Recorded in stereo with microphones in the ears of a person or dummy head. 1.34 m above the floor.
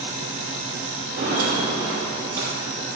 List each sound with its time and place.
1.2 s footsteps: 35° right (ahead or behind), 1.8 m; by 2.9 s 10° right (ahead or behind), 2.0 m